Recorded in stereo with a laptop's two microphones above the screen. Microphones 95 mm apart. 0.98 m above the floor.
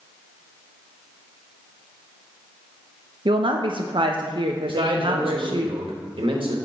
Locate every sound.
3.2 s a woman speaking: 60° right (ahead or behind), 0.5 m
4.7 s a man speaking: 65° right (ahead or behind), 1.4 m